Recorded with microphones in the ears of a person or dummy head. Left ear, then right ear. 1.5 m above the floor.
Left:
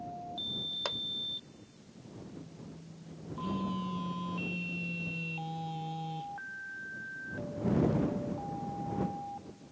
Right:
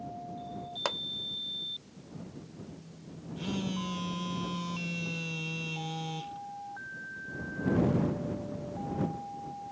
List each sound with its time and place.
0.8 s a pop: 30° right (ahead or behind)
3.4 s a phone buzzing: 35° right (ahead or behind)